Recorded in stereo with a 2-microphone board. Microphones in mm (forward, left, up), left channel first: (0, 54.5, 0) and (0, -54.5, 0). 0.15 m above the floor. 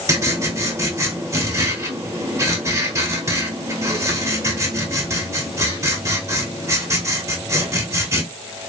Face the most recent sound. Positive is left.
turn(degrees=-30)  # may be behind; listen again after turning